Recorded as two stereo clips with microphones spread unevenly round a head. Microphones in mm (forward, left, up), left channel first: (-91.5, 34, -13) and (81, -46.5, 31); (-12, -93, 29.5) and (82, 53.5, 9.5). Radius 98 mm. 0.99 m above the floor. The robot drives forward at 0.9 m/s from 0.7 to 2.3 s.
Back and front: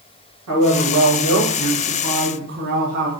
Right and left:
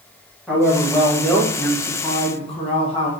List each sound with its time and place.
0.5 s a man speaking: 30° right, 2.5 m; by 3.1 s 65° right, 1.4 m